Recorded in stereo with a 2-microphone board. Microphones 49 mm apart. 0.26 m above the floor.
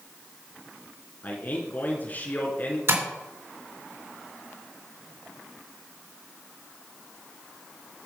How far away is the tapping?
About 3.5 m.